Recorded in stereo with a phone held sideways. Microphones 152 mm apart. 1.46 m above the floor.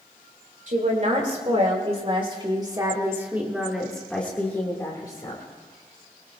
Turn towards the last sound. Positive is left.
turn(degrees=30)  # may be behind; listen again after turning